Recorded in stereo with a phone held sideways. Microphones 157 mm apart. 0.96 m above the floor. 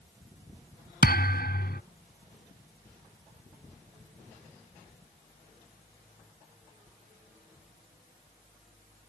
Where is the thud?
70° left (ahead or behind).